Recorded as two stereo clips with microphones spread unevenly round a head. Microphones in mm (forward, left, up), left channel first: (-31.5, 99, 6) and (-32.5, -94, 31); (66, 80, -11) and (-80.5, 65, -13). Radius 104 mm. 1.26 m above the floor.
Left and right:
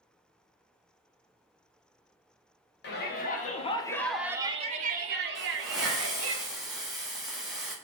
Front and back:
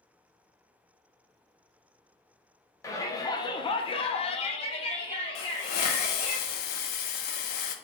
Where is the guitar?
No guitar in this recording.